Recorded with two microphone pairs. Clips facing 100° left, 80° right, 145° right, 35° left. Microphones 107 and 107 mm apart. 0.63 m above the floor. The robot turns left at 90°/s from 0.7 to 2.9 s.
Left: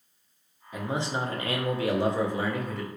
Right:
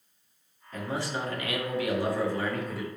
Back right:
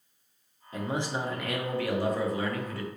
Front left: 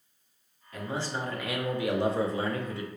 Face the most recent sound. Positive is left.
turn(degrees=-15)